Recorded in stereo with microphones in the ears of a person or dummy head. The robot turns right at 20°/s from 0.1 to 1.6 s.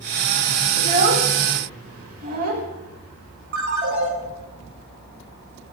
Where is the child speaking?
35° right (ahead or behind), 1.6 m; by 2.7 s 50° right (ahead or behind), 1.6 m.